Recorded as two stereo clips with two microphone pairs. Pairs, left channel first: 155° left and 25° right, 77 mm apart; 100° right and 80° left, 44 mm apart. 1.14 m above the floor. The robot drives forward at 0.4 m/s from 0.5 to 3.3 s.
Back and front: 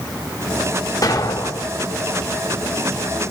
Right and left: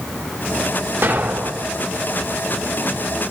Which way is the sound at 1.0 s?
115° left.